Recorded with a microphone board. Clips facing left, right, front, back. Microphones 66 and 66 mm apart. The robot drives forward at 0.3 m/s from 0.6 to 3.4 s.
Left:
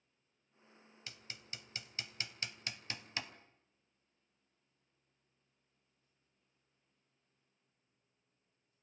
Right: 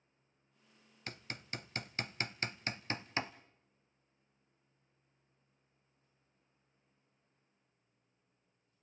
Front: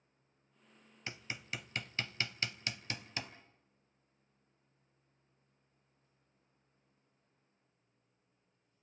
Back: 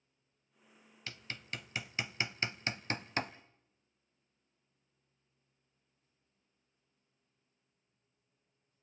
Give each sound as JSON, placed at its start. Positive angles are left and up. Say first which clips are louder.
{"t": 1.1, "sound": "hammering", "louder": "right 7 dB, front 1 dB", "azimuth_deg": -65, "distance_m": 0.5}